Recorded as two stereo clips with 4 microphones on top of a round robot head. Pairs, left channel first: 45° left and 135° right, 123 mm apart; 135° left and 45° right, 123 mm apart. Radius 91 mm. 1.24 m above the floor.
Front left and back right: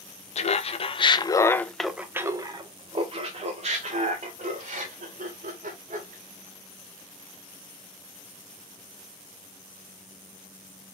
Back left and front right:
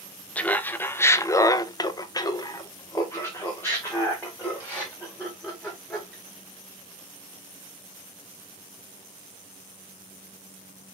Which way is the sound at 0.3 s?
55° left.